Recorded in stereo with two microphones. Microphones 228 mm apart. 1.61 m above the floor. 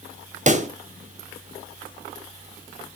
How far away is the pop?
About 0.6 m.